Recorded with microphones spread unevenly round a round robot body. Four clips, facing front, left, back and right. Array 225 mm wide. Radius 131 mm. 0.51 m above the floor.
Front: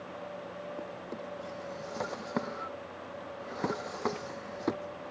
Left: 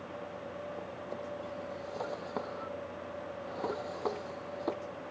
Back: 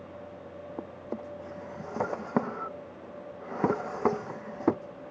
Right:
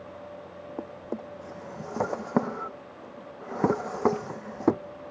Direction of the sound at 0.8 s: 105° right.